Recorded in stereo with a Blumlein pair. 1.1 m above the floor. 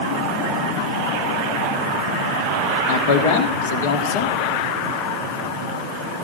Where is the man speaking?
50° left, 2 m.